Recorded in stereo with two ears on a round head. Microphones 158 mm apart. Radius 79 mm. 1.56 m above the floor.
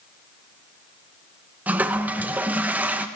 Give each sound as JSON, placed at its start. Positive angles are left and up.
{"t": 1.7, "sound": "a toilet flushing", "side_deg": -10, "distance_m": 0.8}